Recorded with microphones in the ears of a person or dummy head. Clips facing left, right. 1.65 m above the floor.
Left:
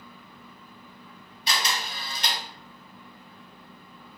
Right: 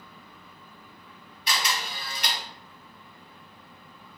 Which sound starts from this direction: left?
A camera shutter, at 1.5 s.